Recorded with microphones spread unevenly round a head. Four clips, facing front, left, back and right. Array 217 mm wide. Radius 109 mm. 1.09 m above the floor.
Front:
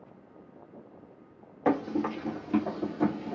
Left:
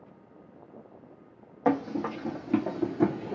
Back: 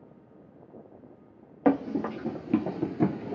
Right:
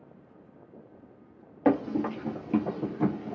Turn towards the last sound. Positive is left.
turn(degrees=125)